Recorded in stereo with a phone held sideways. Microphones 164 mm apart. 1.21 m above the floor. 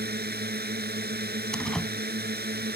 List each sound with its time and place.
0.0 s a drone: 75° right (ahead or behind)
1.5 s a door slam: 5° left (ahead or behind)